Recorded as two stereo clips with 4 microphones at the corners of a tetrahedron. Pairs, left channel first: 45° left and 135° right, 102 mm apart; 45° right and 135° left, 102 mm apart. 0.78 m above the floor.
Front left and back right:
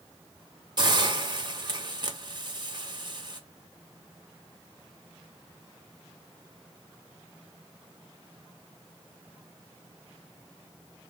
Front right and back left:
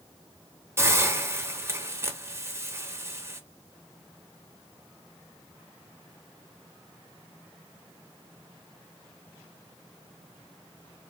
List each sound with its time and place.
0.8 s a hiss: 165° right, 0.5 m